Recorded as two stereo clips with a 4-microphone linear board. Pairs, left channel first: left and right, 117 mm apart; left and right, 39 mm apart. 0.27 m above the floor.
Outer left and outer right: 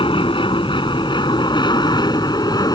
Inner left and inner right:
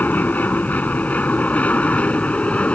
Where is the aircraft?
45° left (ahead or behind); by 2.8 s 35° left (ahead or behind).